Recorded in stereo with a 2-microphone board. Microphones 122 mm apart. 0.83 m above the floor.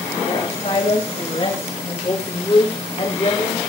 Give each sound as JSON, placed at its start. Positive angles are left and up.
{"t": 0.2, "sound": "a woman speaking", "side_deg": 70, "distance_m": 5.5}